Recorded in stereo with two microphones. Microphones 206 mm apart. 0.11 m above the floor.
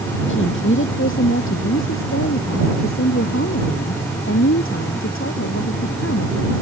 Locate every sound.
0.3 s a woman speaking: 65° left (ahead or behind); by 6.5 s 70° left (ahead or behind)